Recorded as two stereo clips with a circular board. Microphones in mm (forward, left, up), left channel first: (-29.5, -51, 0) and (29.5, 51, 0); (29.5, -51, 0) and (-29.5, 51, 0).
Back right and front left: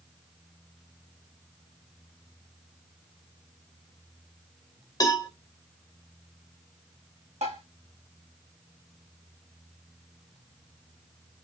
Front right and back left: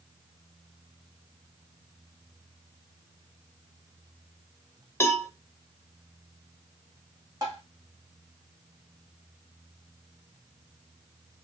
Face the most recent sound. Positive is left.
turn(degrees=60)